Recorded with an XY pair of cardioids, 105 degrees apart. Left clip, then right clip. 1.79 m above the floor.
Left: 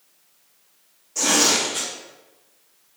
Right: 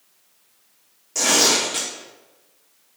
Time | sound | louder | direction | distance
1.1 | tearing paper | right 1 dB | 65° right | 1.3 m